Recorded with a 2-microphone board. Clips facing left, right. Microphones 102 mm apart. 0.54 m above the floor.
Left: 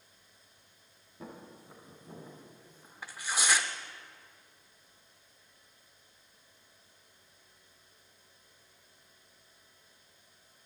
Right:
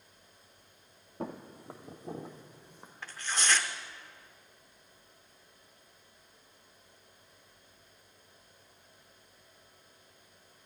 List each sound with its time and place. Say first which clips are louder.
1.2 s footsteps: right 7 dB; 60° right (ahead or behind), 1.1 m; by 2.9 s 65° right (ahead or behind), 1.6 m
3.0 s tearing paper: even; 10° left (ahead or behind), 0.5 m